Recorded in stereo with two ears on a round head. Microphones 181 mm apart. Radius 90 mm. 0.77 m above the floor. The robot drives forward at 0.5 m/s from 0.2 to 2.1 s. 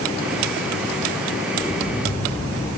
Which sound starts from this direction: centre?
An explosion, at 1.6 s.